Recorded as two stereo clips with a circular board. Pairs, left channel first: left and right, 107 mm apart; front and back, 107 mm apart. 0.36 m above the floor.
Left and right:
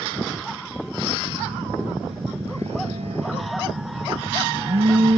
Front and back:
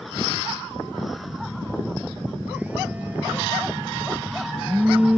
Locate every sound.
1.3 s a phone buzzing: 105° right